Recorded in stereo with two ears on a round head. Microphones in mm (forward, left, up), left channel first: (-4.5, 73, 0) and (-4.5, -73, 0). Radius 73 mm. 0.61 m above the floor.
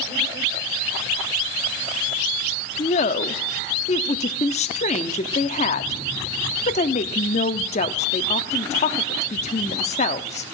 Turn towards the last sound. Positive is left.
turn(degrees=40)  # may be behind; listen again after turning